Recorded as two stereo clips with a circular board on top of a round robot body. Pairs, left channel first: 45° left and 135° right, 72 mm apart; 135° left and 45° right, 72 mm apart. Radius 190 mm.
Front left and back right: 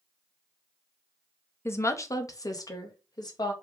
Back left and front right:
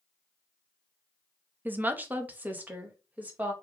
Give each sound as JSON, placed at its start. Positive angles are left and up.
{"t": 1.6, "sound": "a woman speaking", "azimuth_deg": 10, "distance_m": 0.8}